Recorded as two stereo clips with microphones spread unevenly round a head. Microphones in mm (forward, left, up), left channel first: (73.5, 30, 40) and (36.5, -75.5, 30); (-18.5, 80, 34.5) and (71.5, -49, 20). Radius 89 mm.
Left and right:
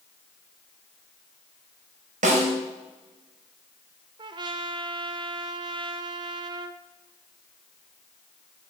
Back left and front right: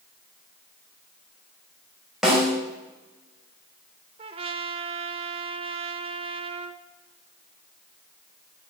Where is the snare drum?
145° right, 3.5 m.